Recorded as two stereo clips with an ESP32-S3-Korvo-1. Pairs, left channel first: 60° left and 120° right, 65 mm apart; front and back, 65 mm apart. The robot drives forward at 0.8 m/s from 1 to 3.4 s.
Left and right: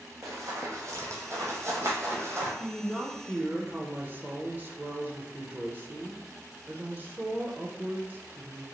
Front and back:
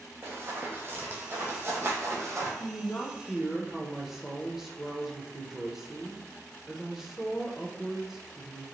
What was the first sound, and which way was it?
Running footsteps, 140° right.